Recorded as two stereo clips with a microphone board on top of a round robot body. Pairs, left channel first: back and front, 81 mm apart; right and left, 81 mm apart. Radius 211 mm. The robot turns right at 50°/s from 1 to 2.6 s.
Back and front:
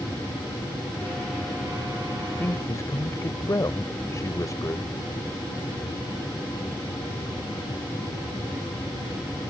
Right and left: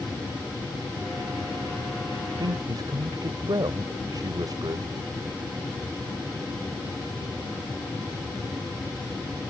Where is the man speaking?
120° left; by 4.9 s 130° left.